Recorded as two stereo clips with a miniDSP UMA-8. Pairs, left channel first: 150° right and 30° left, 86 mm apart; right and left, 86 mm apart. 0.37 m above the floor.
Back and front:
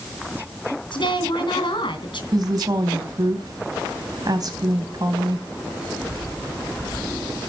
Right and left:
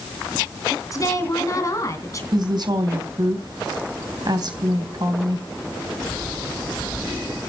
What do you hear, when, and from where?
0.9 s a woman speaking: 135° right, 2.5 m
2.3 s a woman speaking: 65° left, 3 m